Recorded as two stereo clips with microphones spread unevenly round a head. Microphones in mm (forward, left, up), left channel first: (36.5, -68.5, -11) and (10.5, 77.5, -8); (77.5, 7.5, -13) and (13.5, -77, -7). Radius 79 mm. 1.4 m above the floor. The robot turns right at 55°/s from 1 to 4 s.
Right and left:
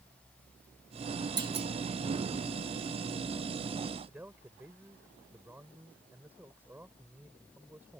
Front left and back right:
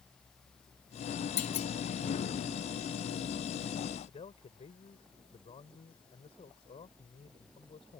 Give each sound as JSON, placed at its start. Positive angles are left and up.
{"t": 1.4, "sound": "a clunk", "azimuth_deg": 40}
{"t": 4.1, "sound": "a man speaking", "azimuth_deg": 20}